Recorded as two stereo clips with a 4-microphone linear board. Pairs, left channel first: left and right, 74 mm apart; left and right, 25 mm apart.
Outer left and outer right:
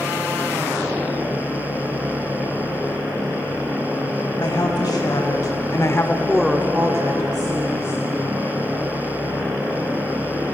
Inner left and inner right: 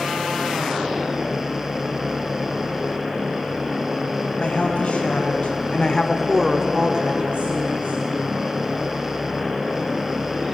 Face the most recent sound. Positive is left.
turn(degrees=-65)  # may be behind; listen again after turning